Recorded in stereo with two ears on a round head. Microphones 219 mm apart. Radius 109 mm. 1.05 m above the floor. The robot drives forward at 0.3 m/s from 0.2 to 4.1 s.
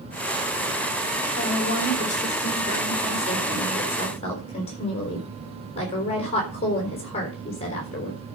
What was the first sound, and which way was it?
A woman speaking, 30° left (ahead or behind).